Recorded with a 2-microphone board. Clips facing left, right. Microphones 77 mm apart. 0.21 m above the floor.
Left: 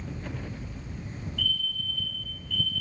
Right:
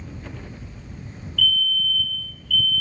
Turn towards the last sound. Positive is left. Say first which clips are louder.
# right 11 dB
turn(degrees=20)  # may be behind; listen again after turning